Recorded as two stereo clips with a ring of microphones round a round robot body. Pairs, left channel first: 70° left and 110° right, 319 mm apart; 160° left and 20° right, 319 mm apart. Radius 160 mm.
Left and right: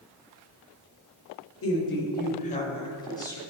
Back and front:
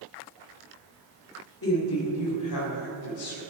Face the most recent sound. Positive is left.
turn(degrees=150)